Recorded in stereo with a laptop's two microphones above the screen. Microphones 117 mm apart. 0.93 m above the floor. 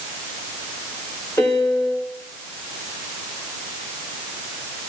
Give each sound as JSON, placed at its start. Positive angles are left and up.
{"t": 1.4, "sound": "a piano", "side_deg": 20, "distance_m": 2.0}